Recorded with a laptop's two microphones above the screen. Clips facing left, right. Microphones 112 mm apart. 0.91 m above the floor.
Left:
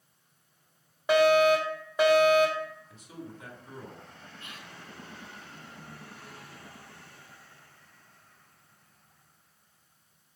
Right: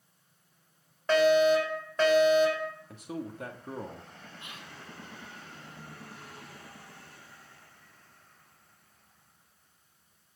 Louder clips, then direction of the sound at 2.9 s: Right 6 dB; 65° right (ahead or behind).